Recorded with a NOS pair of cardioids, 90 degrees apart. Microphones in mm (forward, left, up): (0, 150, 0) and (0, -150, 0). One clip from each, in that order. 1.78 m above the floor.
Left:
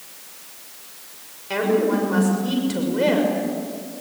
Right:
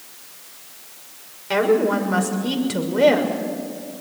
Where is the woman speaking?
30° right, 6 m.